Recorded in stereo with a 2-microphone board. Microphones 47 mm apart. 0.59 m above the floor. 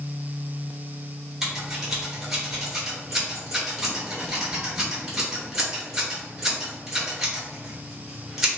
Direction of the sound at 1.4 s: 10° right (ahead or behind).